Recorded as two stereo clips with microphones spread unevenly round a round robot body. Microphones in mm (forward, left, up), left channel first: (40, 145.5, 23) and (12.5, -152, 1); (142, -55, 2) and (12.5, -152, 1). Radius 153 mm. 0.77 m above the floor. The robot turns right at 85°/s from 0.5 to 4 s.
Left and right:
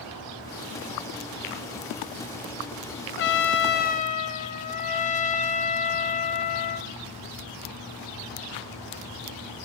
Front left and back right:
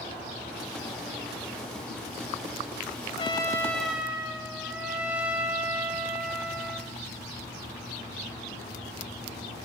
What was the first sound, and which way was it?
A trumpet, 70° left.